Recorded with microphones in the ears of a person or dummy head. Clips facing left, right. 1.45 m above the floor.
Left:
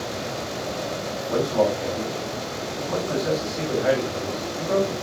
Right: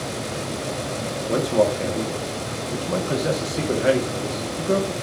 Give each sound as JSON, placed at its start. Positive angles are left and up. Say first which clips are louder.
{"t": 1.3, "sound": "a man speaking", "louder": "right 2 dB", "side_deg": -40, "distance_m": 1.5}